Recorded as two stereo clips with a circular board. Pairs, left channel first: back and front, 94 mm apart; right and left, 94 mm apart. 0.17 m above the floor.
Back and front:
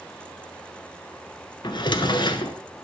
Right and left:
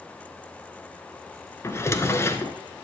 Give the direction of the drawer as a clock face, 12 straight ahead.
5 o'clock.